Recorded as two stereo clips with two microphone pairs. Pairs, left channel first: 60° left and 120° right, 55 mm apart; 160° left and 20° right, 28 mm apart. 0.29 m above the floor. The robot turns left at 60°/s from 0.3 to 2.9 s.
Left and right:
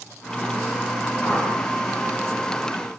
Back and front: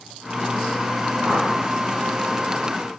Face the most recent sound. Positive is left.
turn(degrees=-125)